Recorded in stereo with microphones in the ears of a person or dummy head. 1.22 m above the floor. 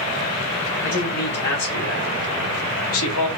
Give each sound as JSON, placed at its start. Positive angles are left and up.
{"t": 0.8, "sound": "a man speaking", "side_deg": 45, "distance_m": 1.4}